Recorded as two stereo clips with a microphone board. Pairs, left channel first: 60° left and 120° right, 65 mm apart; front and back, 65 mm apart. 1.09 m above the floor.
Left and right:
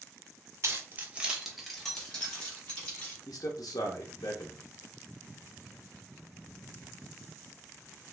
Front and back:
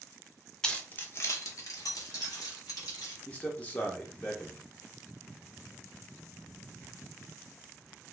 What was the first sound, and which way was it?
Keys jangling, 80° right.